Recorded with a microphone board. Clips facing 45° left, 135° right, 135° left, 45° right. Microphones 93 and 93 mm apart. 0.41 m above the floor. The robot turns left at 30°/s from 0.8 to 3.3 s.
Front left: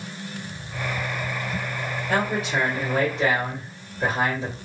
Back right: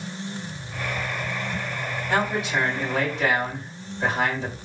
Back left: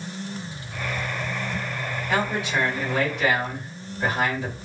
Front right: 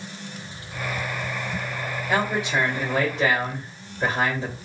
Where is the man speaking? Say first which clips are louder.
Even, front right 1 dB; 20° left, 1.8 m; by 4.5 s 15° right, 1.8 m.